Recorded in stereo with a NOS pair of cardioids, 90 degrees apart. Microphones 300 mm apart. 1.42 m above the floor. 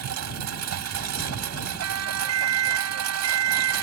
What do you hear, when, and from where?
0.0 s a lawn mower: 70° right
1.8 s a siren: 60° right